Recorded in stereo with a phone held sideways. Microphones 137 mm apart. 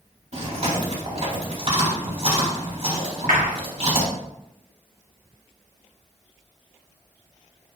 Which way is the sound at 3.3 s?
70° right (ahead or behind).